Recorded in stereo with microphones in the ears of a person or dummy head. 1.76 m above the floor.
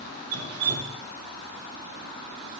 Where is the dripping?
60° right (ahead or behind), 1.6 m.